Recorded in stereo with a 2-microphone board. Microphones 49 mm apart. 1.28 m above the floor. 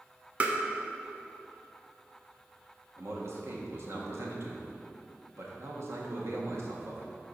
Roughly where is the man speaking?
Right.